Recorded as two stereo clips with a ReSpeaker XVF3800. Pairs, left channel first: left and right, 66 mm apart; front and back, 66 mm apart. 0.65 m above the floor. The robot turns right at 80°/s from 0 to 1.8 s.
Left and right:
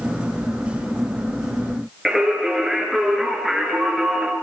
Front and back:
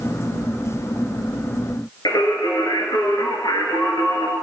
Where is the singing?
Straight ahead, 5 m.